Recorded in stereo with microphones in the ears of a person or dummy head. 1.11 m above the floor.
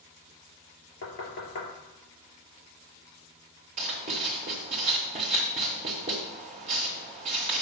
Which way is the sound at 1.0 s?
85° left.